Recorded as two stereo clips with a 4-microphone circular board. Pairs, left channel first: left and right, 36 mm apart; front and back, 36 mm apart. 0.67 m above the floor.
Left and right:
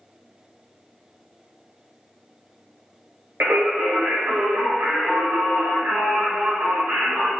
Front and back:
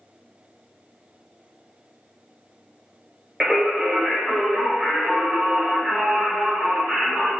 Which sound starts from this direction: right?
Singing, at 3.4 s.